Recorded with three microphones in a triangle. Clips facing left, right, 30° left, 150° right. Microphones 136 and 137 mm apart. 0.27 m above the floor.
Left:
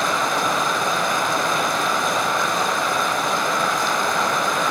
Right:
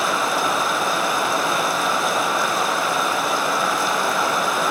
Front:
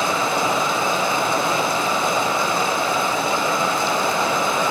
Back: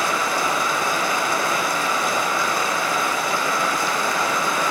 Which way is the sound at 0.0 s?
10° right.